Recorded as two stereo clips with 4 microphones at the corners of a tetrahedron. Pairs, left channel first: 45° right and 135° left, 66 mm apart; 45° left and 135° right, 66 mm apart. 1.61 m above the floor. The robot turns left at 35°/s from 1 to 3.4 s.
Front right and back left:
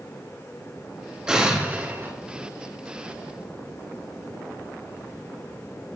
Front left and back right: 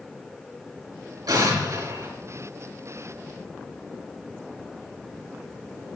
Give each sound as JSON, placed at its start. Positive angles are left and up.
{"t": 1.3, "sound": "an explosion", "azimuth_deg": -145, "distance_m": 3.5}